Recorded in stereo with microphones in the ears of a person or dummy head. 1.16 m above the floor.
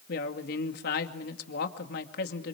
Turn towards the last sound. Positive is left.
turn(degrees=60)  # may be behind; listen again after turning